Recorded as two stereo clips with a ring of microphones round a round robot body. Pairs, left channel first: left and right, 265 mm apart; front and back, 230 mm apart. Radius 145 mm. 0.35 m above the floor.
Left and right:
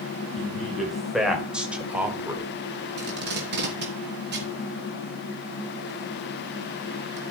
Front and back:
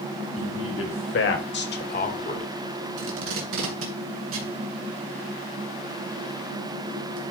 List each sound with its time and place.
0.4 s a man speaking: straight ahead, 3 m; by 2.5 s 25° right, 1.4 m
3.0 s tape being pulled: 140° right, 2.5 m